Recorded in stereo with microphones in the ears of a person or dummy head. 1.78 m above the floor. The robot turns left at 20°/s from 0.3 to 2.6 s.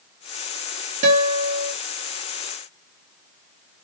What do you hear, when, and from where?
1.0 s a guitar: 45° right (ahead or behind), 0.9 m; by 1.7 s 55° right (ahead or behind), 0.9 m